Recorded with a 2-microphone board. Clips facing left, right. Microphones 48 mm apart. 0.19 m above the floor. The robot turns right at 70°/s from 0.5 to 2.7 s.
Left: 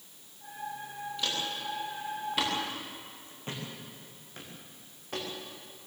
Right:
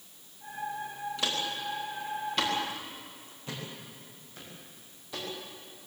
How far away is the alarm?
I don't hear an alarm.